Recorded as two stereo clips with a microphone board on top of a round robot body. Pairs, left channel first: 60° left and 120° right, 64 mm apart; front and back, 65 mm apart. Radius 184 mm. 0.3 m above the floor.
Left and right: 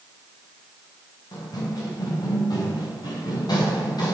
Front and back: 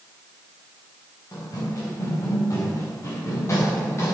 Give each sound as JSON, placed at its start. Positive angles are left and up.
{"t": 1.3, "sound": "running footsteps", "azimuth_deg": 35, "distance_m": 5.5}